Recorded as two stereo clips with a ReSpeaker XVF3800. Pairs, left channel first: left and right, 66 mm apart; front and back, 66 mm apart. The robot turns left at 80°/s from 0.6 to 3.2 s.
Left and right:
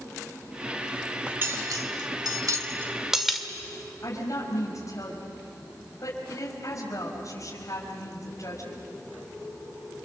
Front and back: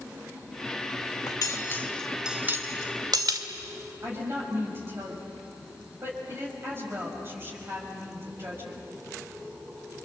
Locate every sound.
1.3 s cutlery clinking: 20° right, 1.9 m; by 3.5 s 175° right, 1.9 m
4.0 s a woman speaking: 130° left, 5.5 m